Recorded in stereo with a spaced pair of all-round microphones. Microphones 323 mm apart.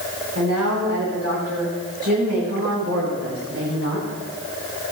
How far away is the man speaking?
About 9.5 m.